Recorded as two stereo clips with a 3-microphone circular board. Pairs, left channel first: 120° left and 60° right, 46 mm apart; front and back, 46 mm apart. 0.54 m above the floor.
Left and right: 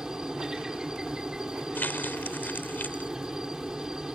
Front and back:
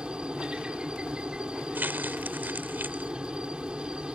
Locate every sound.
0.0 s a helicopter: 125° right
1.8 s crumpling: 150° left